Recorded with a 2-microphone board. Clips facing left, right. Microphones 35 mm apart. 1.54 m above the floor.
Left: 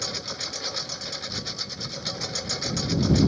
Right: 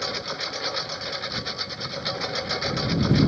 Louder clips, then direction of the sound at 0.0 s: Right 4 dB; 20° right (ahead or behind).